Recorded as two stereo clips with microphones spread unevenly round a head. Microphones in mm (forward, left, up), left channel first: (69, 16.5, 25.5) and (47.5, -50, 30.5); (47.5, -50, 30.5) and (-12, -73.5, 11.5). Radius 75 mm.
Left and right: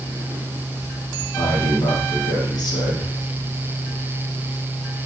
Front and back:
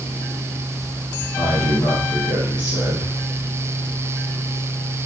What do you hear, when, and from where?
1.4 s a man speaking: 60° left, 5.5 m